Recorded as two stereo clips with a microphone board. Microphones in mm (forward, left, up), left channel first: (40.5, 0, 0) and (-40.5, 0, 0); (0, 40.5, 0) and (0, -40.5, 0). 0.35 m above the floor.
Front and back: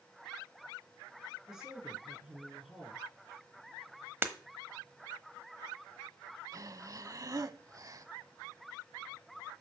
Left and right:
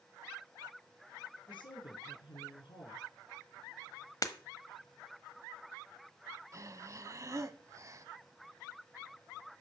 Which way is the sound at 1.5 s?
95° left.